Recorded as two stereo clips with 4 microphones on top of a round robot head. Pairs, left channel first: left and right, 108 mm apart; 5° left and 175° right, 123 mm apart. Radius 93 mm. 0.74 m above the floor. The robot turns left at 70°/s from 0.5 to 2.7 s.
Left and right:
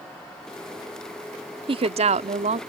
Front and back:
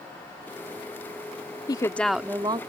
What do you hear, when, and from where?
1.7 s a woman speaking: 55° right; by 2.6 s 120° right